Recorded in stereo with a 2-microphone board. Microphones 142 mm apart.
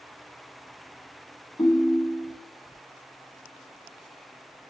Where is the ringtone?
20° left (ahead or behind), 1.5 m.